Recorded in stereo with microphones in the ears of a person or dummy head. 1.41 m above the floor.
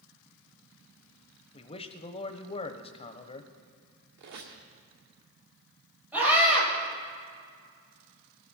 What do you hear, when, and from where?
1.5 s a man speaking: 30° left (ahead or behind), 0.9 m
4.2 s a squeak: 60° right (ahead or behind), 2 m
6.1 s a scream: 15° right (ahead or behind), 7 m